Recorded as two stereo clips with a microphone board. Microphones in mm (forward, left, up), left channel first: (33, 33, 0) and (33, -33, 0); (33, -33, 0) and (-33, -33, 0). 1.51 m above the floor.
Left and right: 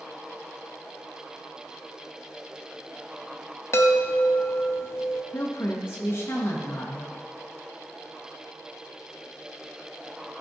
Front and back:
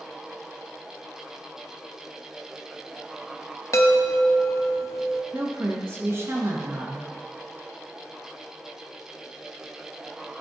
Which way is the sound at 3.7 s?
40° left.